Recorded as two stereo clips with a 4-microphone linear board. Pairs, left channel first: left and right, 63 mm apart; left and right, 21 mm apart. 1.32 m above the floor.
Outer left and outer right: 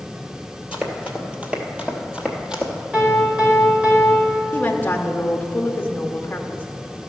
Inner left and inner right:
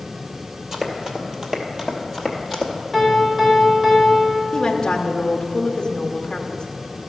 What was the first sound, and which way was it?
Running footsteps, 20° right (ahead or behind).